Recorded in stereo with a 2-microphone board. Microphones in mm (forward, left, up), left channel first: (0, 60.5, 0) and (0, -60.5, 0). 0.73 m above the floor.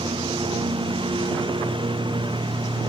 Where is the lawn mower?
45° right (ahead or behind).